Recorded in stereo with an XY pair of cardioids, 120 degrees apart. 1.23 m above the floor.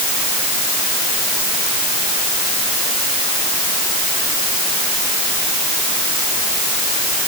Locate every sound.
Only background noise.